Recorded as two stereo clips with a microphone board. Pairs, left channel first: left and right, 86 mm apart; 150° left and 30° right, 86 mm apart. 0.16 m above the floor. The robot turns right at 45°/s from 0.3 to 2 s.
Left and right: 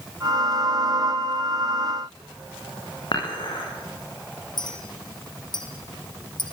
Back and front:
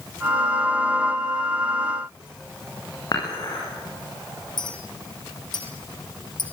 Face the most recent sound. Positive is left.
turn(degrees=120)